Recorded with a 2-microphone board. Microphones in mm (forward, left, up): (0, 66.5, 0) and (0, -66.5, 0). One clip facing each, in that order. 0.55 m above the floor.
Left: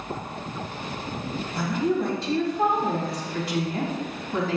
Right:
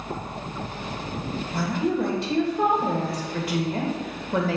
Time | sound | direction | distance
1.5 | a woman speaking | 60° right (ahead or behind) | 2.5 m